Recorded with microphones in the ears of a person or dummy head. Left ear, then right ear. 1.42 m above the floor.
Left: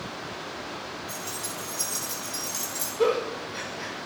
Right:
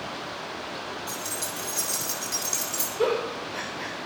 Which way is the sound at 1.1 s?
60° right (ahead or behind).